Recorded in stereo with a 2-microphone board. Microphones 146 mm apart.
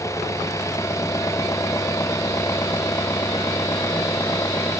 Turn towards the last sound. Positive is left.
turn(degrees=20)  # may be behind; listen again after turning